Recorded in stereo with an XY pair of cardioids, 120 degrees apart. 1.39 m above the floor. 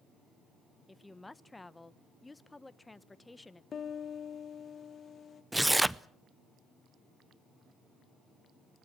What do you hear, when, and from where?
0.9 s a woman speaking: 15° left, 0.9 m
3.7 s a piano: 40° left, 1.7 m
5.5 s tearing paper: 5° right, 0.5 m